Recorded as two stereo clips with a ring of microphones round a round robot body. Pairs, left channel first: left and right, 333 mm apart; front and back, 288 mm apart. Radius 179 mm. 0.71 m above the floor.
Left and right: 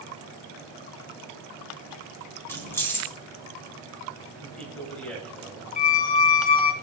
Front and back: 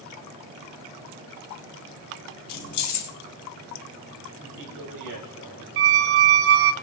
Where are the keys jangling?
5° left, 3.5 m.